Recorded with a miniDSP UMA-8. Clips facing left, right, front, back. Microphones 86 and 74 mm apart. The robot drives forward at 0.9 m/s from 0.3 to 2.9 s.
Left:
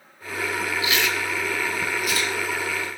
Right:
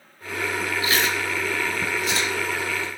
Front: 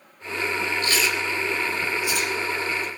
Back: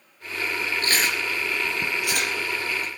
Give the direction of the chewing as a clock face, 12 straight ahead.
5 o'clock.